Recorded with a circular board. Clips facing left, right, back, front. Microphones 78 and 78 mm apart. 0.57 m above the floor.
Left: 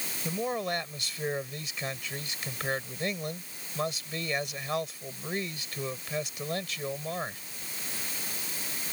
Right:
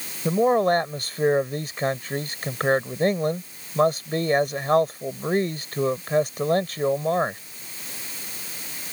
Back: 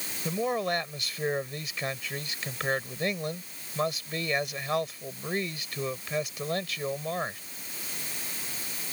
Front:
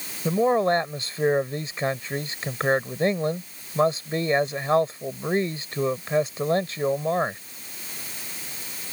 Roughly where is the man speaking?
Ahead right.